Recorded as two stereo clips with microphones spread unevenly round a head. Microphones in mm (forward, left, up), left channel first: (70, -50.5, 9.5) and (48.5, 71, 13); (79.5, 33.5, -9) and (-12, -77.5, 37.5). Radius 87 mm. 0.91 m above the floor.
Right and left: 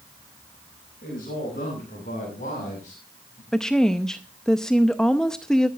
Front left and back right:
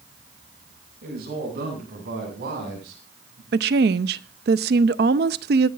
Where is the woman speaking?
165° right, 0.6 m.